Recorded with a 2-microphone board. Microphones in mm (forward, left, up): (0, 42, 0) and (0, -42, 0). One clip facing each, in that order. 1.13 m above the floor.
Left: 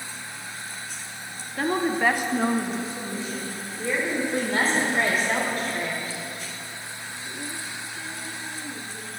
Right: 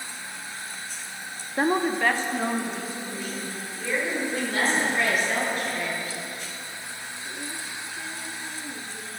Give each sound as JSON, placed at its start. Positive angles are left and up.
{"t": 1.6, "sound": "a woman speaking", "side_deg": -30, "distance_m": 0.5}
{"t": 4.3, "sound": "a woman speaking", "side_deg": 40, "distance_m": 5.0}